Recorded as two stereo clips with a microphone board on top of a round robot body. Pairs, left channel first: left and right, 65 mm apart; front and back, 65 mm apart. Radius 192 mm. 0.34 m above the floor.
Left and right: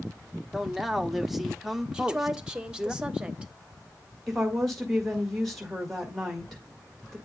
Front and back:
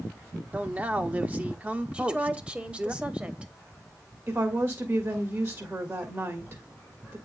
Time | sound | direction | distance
0.5 | a man speaking | 170° right | 0.8 m
1.9 | a woman speaking | 140° right | 1.2 m
4.3 | a woman speaking | straight behind | 1.7 m